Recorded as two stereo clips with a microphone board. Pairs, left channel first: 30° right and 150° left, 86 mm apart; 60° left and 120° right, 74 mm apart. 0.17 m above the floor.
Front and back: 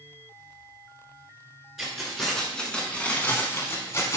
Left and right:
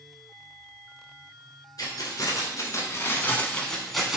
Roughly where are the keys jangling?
Ahead left.